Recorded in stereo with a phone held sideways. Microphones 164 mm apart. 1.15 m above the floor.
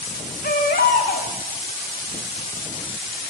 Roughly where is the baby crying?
Left.